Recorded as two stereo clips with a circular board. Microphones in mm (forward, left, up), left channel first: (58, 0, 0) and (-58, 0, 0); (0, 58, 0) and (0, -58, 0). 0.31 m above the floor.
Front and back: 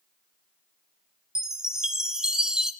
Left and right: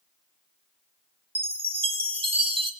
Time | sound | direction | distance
1.4 | a chime | 100° right | 0.8 m